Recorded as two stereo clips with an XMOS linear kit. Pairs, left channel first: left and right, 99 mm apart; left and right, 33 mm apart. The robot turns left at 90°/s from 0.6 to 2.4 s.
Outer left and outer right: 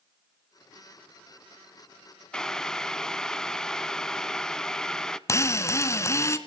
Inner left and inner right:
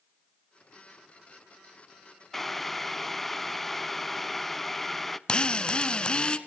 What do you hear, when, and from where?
2.3 s boiling: 10° left (ahead or behind), 0.5 m; by 5.2 s 5° left (ahead or behind), 0.5 m
5.3 s a drill: 30° left (ahead or behind), 1.0 m